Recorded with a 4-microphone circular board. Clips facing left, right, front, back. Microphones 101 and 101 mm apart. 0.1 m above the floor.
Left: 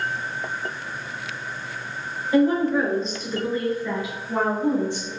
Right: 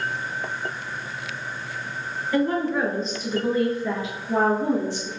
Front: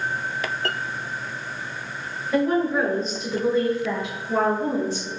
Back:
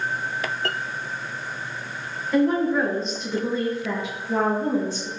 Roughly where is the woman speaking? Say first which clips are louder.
Left 4 dB, back 1 dB; left.